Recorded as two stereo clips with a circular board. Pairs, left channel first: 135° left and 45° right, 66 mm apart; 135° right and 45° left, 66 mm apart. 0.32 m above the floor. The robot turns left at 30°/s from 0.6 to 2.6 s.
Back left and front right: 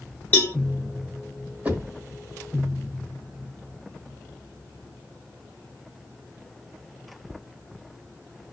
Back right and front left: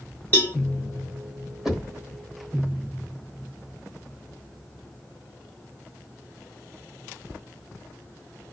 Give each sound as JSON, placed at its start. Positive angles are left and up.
{"t": 0.3, "sound": "a cowbell", "azimuth_deg": 175, "distance_m": 1.2}
{"t": 1.6, "sound": "knocking", "azimuth_deg": -20, "distance_m": 1.1}